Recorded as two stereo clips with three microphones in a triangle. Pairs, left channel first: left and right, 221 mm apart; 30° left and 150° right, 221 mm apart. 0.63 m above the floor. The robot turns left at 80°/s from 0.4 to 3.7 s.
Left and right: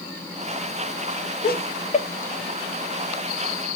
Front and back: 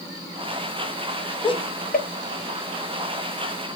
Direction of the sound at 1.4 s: 90° left.